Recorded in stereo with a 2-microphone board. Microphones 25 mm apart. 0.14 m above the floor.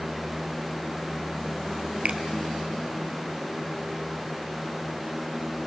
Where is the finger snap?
55° right (ahead or behind), 2 m.